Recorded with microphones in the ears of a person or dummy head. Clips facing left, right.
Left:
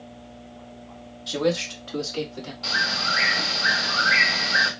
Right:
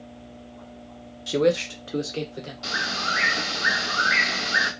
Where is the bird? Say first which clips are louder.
Even; 30° right (ahead or behind), 2.5 m.